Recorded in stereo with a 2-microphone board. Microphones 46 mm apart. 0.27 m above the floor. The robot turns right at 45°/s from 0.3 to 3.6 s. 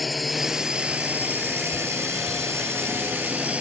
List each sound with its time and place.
0.0 s a drone: straight behind; by 3.6 s 30° right